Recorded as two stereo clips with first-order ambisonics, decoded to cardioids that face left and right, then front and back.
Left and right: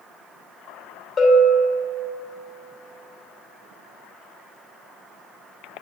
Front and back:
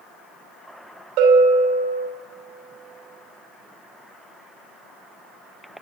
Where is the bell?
160° left, 3 m.